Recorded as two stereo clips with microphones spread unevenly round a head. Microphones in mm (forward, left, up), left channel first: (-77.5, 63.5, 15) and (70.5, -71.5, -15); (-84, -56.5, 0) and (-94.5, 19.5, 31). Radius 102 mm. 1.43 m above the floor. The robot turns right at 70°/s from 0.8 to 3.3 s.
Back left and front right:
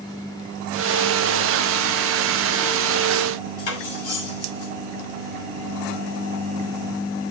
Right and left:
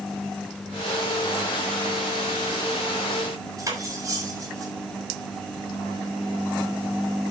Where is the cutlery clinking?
135° left, 6.5 m.